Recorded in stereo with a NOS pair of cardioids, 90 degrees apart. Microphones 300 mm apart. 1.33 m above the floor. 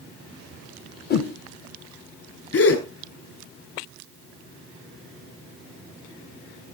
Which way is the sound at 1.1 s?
30° left.